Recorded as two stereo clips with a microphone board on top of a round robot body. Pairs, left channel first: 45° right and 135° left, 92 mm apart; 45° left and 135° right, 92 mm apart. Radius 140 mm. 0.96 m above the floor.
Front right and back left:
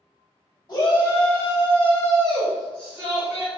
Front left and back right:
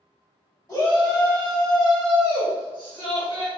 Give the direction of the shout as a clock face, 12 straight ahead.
12 o'clock.